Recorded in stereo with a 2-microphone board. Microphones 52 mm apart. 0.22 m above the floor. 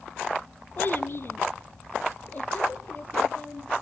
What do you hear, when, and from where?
0.8 s a child speaking: 40° left (ahead or behind), 1.1 m; by 3.7 s 30° left (ahead or behind), 4 m